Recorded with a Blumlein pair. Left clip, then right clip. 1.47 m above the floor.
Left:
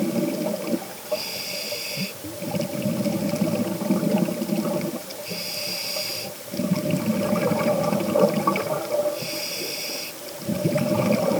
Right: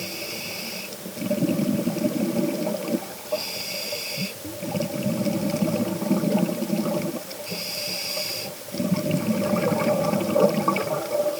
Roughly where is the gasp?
I don't hear a gasp.